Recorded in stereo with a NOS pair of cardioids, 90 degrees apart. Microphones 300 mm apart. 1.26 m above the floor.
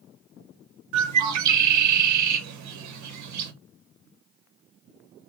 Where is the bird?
70° right, 0.9 m.